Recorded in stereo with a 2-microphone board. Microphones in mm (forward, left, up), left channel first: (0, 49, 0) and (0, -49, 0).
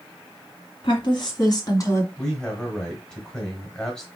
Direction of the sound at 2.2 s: 15° left (ahead or behind).